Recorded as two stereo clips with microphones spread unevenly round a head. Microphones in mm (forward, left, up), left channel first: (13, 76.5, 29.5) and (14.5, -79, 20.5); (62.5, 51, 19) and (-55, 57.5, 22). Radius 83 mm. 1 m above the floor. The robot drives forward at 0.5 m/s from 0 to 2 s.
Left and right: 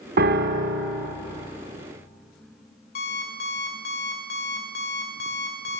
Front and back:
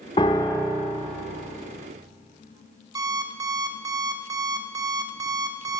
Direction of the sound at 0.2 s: 65° right.